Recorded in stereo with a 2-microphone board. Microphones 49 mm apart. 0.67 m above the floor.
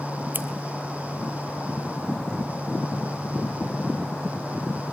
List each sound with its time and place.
0.3 s scissors: 40° right (ahead or behind), 3 m